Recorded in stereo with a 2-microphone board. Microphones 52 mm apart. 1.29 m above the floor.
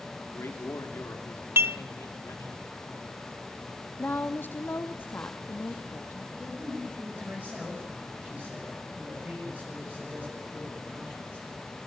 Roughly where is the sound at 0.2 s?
Left.